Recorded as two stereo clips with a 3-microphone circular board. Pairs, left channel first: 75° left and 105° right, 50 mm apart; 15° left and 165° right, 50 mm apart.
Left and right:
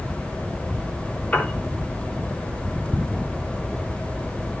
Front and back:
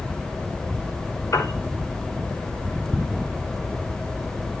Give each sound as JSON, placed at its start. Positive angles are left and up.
{"t": 1.3, "sound": "a piano", "azimuth_deg": 20, "distance_m": 6.0}